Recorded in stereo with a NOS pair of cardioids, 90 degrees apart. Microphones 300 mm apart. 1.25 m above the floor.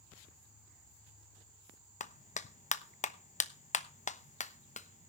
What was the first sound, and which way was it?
A clap, 25° left.